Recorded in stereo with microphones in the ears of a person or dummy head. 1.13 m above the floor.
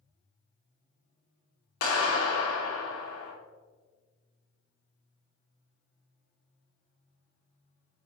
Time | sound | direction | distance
1.8 | a clap | 80° left | 3 m